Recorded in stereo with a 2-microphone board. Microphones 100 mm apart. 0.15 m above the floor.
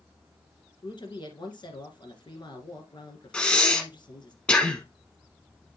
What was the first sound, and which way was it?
A woman speaking, 50° left (ahead or behind).